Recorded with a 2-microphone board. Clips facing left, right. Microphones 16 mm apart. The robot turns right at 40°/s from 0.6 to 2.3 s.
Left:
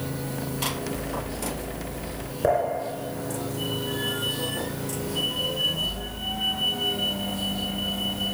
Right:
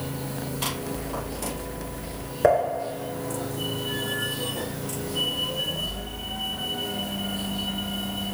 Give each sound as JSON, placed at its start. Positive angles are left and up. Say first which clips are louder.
{"t": 2.4, "sound": "dishes clattering", "louder": "right 3 dB", "side_deg": -20, "distance_m": 2.5}